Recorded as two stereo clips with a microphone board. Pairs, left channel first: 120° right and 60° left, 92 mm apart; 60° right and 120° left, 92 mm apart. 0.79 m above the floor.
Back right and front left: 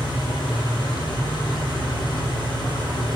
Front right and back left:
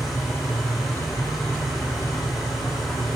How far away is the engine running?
About 4 m.